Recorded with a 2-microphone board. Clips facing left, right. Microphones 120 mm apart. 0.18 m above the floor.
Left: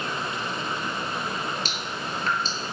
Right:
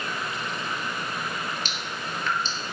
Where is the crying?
No crying in this recording.